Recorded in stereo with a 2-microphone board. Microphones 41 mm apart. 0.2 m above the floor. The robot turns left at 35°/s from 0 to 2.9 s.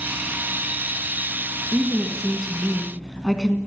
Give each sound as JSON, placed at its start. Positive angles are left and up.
{"t": 1.7, "sound": "a woman speaking", "azimuth_deg": -150, "distance_m": 1.8}